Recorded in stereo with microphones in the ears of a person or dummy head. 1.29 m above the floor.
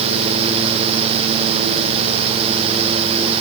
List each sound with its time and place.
Only background noise.